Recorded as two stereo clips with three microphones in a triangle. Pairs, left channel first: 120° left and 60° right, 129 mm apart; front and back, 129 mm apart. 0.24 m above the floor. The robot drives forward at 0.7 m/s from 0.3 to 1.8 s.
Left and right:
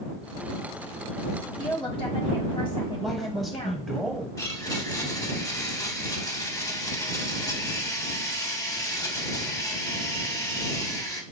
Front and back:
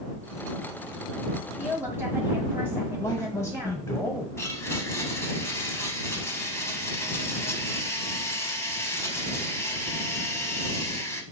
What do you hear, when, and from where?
1.6 s a woman speaking: 110° left, 1.3 m; by 3.9 s 120° left, 1.3 m
3.0 s a man speaking: 30° left, 1.0 m
4.4 s a blender: 60° left, 0.7 m